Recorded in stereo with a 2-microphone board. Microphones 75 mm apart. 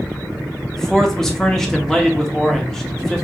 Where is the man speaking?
5° left (ahead or behind), 0.7 m.